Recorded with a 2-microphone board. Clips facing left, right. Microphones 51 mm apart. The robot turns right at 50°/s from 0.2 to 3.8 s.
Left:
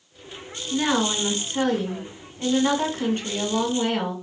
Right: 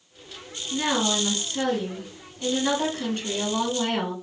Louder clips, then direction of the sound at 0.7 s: Left 2 dB; 15° left.